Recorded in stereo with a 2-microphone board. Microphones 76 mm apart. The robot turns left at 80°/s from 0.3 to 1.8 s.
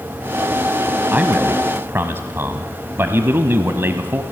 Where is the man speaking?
45° right, 1.1 m; by 4.2 s 100° right, 1.1 m.